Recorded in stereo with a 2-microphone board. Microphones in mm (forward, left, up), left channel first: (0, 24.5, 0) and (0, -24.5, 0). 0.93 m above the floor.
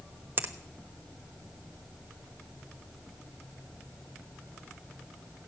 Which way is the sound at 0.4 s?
45° right (ahead or behind).